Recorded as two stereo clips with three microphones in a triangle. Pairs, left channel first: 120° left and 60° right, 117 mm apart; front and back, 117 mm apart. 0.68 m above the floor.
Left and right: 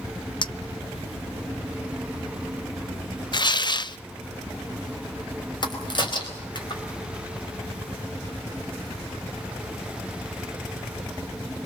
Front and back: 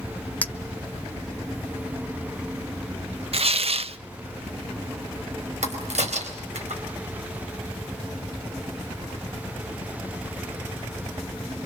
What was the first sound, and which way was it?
A clink, 75° left.